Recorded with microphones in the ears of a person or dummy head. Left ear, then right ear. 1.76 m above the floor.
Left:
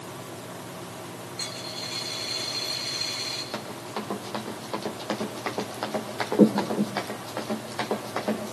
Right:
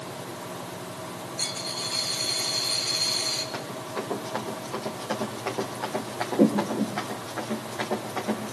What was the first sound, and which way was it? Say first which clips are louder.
A dropped coin: right 3 dB; 20° left (ahead or behind).